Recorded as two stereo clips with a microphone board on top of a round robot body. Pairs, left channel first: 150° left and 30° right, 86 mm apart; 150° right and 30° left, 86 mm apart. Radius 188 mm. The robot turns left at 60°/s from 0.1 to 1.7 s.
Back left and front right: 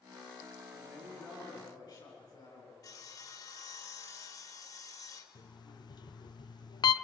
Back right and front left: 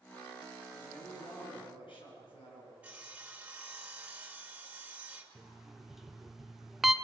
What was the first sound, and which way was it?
A man speaking, 110° right.